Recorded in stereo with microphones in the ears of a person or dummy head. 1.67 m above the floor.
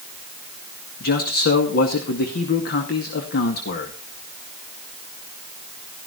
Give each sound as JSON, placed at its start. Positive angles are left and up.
{"t": 1.0, "sound": "a man speaking", "side_deg": 60, "distance_m": 2.0}